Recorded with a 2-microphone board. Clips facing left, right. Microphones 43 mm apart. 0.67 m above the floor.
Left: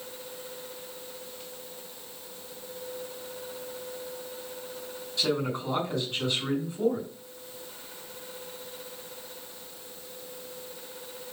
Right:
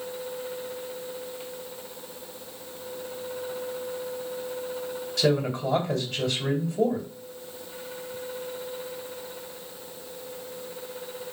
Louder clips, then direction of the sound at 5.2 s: Right 4 dB; 75° right (ahead or behind).